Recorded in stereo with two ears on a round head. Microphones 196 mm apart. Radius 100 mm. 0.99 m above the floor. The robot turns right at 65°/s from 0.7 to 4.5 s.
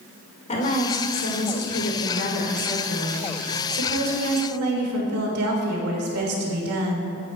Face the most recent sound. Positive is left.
turn(degrees=-80)